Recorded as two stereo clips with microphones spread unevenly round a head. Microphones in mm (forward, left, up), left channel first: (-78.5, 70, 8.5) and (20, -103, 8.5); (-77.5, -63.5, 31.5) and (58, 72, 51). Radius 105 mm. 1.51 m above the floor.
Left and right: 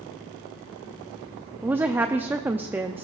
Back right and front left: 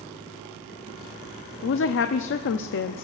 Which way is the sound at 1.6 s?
140° right.